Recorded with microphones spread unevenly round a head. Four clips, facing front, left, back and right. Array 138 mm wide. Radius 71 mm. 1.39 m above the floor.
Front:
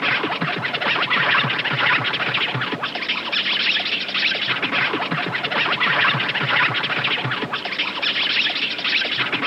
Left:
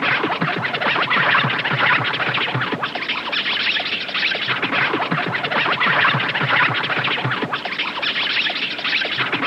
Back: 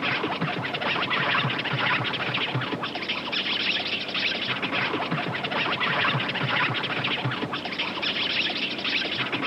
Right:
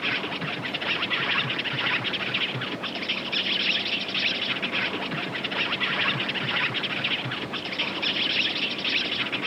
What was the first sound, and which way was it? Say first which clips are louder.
An insect: left 11 dB, front 4 dB; 65° left.